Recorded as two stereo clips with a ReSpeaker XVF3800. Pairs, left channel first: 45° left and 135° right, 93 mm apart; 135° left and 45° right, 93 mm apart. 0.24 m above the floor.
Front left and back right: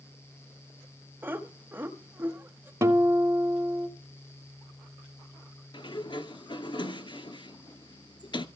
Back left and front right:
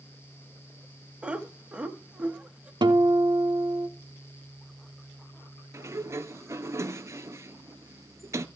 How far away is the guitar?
About 1.1 m.